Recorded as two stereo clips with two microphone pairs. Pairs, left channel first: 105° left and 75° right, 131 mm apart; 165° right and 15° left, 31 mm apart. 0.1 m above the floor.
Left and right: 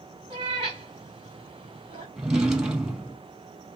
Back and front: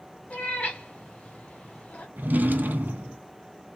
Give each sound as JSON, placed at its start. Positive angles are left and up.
{"t": 0.3, "sound": "a cat meowing", "azimuth_deg": -120, "distance_m": 1.6}
{"t": 2.2, "sound": "a drawer", "azimuth_deg": 10, "distance_m": 0.8}